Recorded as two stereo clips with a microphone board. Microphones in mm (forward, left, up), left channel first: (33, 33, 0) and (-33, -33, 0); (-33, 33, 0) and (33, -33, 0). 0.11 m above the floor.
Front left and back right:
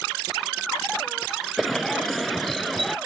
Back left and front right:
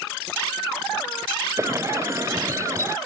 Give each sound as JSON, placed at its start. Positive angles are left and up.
{"t": 1.6, "sound": "a bird", "azimuth_deg": -45}